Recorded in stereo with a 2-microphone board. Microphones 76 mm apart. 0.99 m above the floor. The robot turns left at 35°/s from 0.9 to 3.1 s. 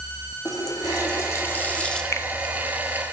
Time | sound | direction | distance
0.5 | a running tap | 50° left | 1.5 m
2.1 | a finger snap | 35° left (ahead or behind) | 0.6 m